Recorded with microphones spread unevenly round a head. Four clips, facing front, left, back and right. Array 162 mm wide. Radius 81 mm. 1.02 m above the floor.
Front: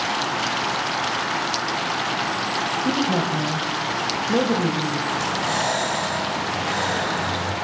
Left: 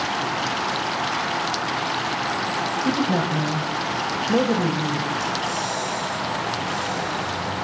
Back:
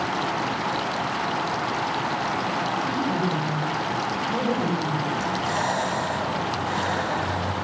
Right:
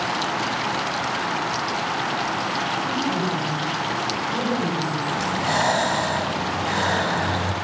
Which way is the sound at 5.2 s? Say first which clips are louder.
Right 3 dB, front 1 dB; 70° right.